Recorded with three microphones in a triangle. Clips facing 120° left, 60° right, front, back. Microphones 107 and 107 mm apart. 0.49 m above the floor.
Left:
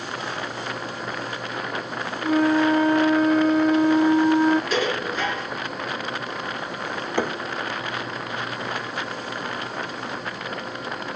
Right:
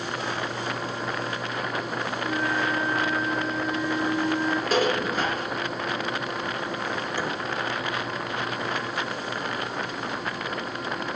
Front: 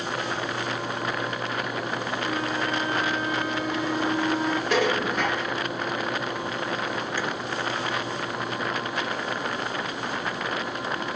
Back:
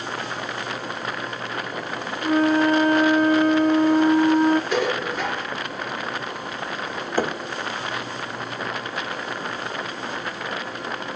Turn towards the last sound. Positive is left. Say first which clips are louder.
# left 9 dB, back 11 dB
turn(degrees=140)